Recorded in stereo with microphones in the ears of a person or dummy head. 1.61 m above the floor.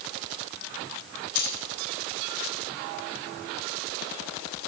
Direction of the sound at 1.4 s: 75° left (ahead or behind).